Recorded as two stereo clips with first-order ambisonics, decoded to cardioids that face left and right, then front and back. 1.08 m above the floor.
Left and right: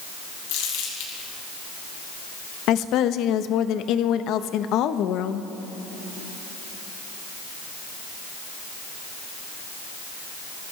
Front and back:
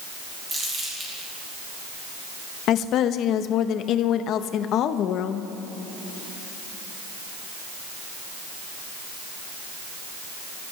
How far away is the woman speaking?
About 0.8 m.